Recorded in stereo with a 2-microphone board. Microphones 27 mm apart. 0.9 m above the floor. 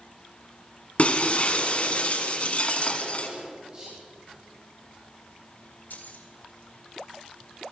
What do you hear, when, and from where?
1.0 s breaking glass: 45° left (ahead or behind), 1.6 m
3.7 s whispering: 40° right (ahead or behind), 4.5 m
5.9 s keys jangling: 90° left, 1.9 m